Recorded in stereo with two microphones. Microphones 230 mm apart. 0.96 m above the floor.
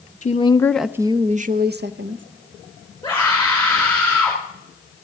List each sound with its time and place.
0.2 s a woman speaking: 30° left (ahead or behind), 0.6 m; by 2.2 s 60° right (ahead or behind), 0.9 m
3.0 s a scream: 10° left (ahead or behind), 4.5 m